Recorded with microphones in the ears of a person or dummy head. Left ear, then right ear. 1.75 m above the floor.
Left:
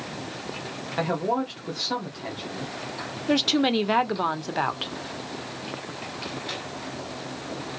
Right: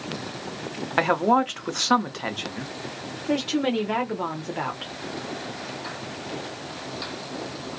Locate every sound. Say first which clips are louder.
1.0 s a man speaking: right 6 dB; 40° right (ahead or behind), 0.7 m
3.3 s a woman speaking: left 3 dB; 30° left (ahead or behind), 0.6 m